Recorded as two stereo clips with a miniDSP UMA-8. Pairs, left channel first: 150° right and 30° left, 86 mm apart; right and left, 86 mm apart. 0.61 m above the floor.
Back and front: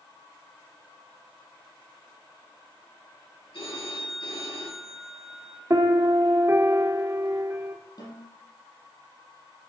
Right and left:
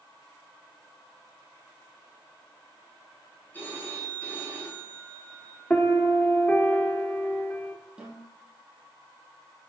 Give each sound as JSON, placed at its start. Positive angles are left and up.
{"t": 3.5, "sound": "a phone ringing", "azimuth_deg": -160, "distance_m": 5.0}
{"t": 5.7, "sound": "a piano", "azimuth_deg": -20, "distance_m": 1.0}
{"t": 8.0, "sound": "a snare drum", "azimuth_deg": 175, "distance_m": 4.5}